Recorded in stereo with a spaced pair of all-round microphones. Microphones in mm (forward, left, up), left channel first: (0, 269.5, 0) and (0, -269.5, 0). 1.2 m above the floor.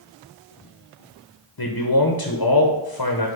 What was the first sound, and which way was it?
A man speaking, 40° left (ahead or behind).